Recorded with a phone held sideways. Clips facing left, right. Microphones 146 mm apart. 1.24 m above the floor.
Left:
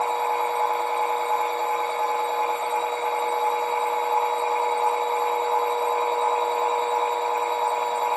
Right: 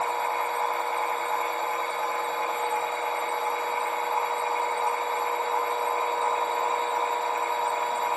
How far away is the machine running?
About 2 m.